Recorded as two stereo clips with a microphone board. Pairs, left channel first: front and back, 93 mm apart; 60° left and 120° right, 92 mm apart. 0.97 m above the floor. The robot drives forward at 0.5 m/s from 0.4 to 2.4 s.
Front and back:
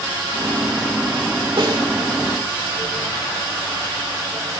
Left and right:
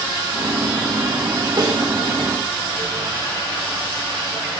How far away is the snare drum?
About 2.5 m.